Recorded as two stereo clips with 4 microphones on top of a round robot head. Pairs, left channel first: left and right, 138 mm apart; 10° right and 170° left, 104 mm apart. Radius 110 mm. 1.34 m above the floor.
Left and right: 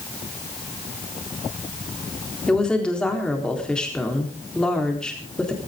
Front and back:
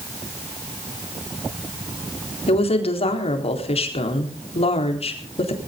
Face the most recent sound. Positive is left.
turn(degrees=5)